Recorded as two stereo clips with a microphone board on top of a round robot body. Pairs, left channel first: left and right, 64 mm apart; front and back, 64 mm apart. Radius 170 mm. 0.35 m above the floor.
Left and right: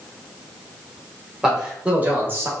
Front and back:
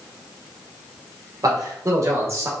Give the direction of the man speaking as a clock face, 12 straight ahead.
6 o'clock.